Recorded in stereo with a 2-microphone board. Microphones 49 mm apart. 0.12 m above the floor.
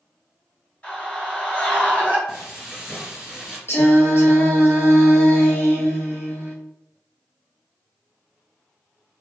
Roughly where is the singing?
Left.